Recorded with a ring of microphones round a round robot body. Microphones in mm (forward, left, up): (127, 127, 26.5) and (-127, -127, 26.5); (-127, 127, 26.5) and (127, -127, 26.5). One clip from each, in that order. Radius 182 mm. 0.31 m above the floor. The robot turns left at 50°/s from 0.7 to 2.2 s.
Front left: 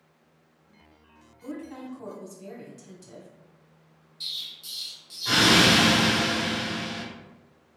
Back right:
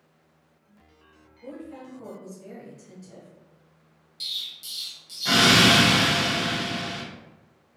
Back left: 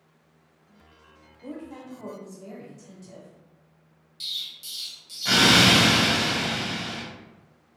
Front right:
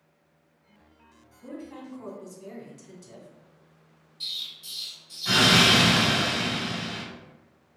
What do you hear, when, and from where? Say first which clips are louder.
1.4 s a woman speaking: front left 1 dB, back left 1 dB; 65° left, 1.0 m; by 3.3 s 25° left, 1.0 m
4.2 s an explosion: back right 2 dB, back left 1 dB; 165° right, 1.1 m